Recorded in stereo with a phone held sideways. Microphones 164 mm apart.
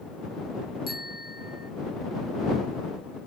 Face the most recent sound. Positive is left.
turn(degrees=70)  # may be behind; listen again after turning